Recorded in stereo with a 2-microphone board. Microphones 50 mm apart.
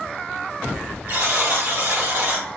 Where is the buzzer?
55° right (ahead or behind), 1.8 m.